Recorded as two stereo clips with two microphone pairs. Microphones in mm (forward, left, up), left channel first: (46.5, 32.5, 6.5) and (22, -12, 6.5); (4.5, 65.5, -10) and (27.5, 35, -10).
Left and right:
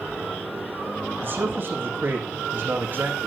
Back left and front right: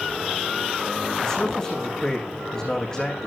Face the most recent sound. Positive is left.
turn(degrees=-165)